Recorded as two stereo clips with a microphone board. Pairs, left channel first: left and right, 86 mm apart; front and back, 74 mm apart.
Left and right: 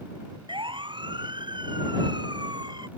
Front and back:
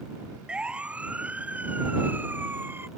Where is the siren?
105° right; by 2.9 s 120° right.